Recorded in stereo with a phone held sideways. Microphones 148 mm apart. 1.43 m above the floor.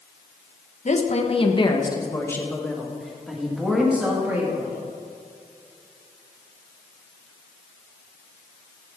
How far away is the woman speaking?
About 1.3 m.